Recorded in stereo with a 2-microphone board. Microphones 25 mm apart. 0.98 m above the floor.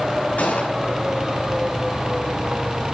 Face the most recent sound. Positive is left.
turn(degrees=85)